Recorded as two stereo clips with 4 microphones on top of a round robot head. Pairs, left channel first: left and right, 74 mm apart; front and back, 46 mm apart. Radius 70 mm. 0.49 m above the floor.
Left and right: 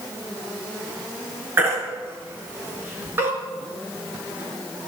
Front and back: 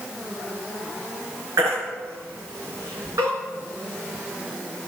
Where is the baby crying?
150° right, 4 m.